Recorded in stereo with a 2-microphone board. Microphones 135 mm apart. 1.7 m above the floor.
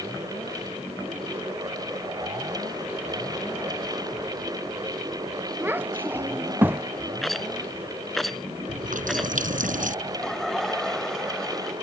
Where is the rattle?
Centre (ahead or behind).